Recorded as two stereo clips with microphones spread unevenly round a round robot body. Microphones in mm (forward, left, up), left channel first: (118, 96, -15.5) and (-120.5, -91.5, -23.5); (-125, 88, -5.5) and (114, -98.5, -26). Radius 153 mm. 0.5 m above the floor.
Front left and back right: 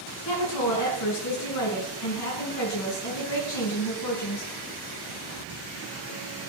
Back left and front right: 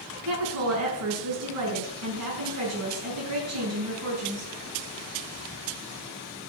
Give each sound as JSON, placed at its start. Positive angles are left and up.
{"t": 0.2, "sound": "a woman speaking", "azimuth_deg": 5, "distance_m": 6.0}